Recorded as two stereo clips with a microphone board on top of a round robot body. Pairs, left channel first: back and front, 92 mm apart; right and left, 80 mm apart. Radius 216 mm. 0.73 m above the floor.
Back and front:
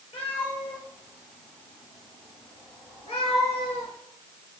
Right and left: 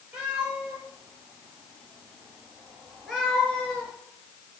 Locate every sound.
0.1 s a cat meowing: 165° left, 3.5 m; by 3.9 s 165° right, 1.6 m